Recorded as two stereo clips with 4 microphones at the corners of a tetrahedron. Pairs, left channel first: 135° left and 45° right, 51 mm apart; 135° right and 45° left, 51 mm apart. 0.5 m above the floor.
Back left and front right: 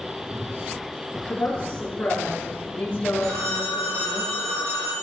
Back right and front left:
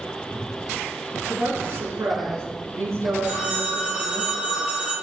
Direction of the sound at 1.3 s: 70° left.